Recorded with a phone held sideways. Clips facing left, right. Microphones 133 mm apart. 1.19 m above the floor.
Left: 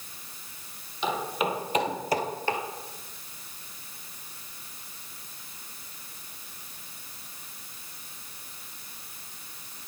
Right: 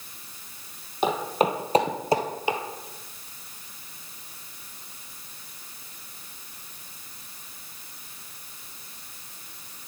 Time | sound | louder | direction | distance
1.0 | footsteps | right 5 dB | 50° right (ahead or behind) | 2 m